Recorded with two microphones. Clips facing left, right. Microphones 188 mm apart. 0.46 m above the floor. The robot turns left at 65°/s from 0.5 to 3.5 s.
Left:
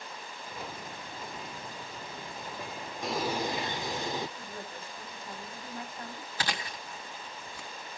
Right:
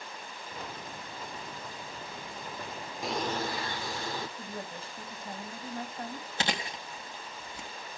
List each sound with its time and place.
3.0 s a bird: 175° right, 0.7 m; by 4.3 s 155° left, 0.7 m
4.4 s a woman speaking: 30° right (ahead or behind), 3 m
6.4 s chewing: 25° right (ahead or behind), 1.4 m